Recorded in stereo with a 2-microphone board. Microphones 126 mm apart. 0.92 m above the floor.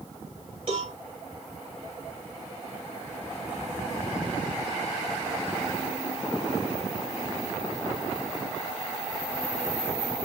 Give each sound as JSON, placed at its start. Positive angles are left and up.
{"t": 0.7, "sound": "a cowbell", "side_deg": -45, "distance_m": 4.5}